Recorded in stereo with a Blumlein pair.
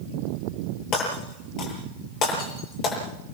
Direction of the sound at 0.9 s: 35° left.